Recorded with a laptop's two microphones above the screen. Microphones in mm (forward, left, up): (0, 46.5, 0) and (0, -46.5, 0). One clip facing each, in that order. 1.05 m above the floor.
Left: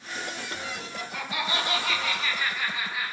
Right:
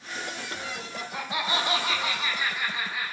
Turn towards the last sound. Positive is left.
turn(degrees=0)  # may be behind; listen again after turning